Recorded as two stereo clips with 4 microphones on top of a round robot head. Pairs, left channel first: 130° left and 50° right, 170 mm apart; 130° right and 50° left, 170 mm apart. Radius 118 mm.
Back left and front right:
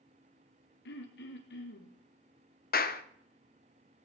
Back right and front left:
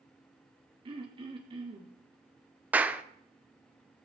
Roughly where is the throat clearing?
Left.